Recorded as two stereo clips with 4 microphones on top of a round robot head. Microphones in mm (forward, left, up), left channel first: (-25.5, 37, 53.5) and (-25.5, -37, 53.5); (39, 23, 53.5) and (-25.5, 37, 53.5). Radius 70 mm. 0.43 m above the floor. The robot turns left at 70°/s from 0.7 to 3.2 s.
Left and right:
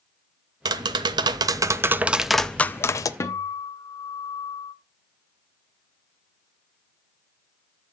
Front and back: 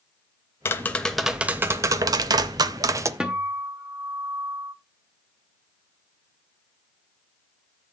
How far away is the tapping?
About 0.6 m.